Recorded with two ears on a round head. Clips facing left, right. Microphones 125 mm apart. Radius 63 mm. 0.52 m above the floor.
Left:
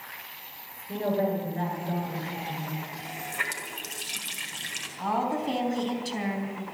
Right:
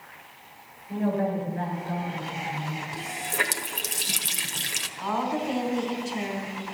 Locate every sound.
0.9 s a woman speaking: 30° left (ahead or behind), 9.5 m
2.9 s a running tap: 60° right (ahead or behind), 1.6 m
5.0 s a woman speaking: 45° left (ahead or behind), 4 m